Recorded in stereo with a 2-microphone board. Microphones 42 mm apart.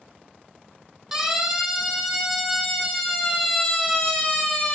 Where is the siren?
15° right (ahead or behind), 6.5 m; by 4.8 s 20° left (ahead or behind), 4.5 m.